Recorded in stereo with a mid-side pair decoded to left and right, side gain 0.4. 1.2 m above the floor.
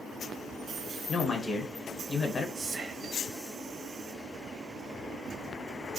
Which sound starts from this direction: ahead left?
A man speaking, at 1.1 s.